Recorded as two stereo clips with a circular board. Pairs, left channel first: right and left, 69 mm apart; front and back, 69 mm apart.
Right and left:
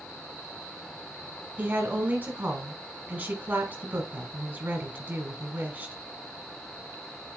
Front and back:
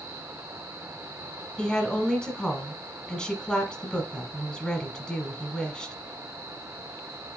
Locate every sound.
1.6 s a woman speaking: 65° left, 1.2 m